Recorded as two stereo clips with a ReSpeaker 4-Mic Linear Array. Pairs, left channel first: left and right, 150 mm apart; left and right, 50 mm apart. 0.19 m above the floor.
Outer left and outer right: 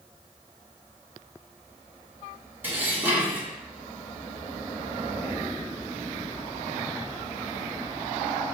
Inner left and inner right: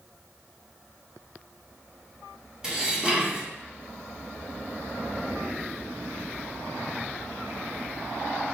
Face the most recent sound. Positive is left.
turn(degrees=-15)  # may be behind; listen again after turning